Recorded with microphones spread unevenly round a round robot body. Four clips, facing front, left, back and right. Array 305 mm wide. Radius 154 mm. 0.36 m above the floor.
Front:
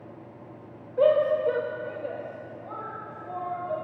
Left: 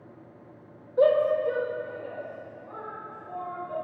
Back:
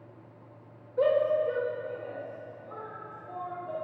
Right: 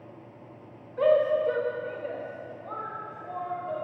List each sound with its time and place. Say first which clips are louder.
1.0 s a shout: left 1 dB, front 4 dB; 105° left, 0.8 m; by 3.7 s 45° right, 2.5 m